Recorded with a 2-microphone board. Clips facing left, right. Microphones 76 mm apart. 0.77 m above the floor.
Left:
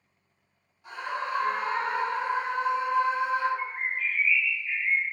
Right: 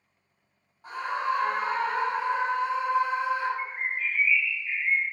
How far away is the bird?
About 0.6 m.